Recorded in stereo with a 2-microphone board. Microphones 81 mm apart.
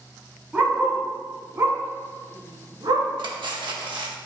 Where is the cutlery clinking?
70° right (ahead or behind), 1.3 m.